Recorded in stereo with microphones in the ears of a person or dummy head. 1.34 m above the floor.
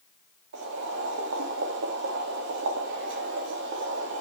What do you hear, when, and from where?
0.5 s boiling: 60° right (ahead or behind), 2.5 m